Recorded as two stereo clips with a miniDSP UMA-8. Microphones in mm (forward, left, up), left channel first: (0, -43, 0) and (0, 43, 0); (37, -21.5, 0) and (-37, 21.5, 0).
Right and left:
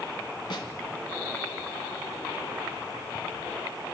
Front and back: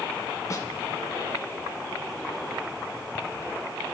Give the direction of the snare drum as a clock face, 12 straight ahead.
3 o'clock.